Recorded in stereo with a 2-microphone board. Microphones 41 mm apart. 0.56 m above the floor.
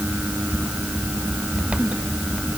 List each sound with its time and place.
Only background noise.